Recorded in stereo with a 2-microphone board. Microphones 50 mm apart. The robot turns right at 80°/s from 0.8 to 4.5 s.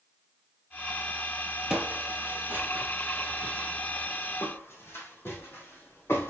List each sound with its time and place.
1.7 s footsteps: 10° right (ahead or behind), 1.3 m; by 6.3 s 50° left (ahead or behind), 3 m